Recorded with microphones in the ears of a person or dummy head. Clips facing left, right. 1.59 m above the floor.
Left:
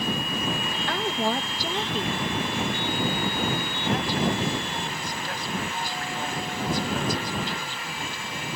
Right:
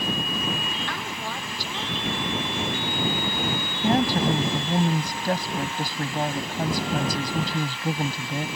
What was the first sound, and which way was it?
A woman speaking, 45° left (ahead or behind).